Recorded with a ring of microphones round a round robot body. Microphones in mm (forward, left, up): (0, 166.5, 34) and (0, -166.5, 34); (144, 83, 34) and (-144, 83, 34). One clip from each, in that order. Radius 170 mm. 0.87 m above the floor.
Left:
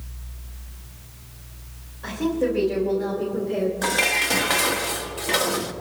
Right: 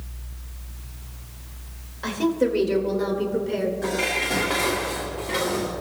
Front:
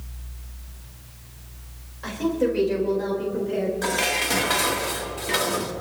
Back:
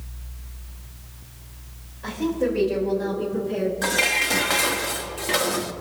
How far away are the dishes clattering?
About 1.2 m.